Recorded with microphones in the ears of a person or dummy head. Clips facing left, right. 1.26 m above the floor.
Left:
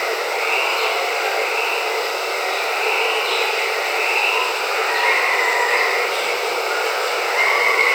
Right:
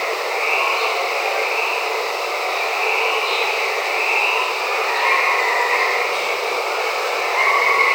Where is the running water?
15° left (ahead or behind), 3 m.